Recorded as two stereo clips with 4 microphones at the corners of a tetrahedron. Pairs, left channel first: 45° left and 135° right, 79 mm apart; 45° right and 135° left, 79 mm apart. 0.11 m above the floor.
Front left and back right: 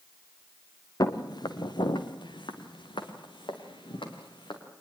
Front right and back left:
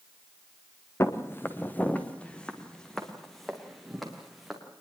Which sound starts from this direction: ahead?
Footsteps, at 1.0 s.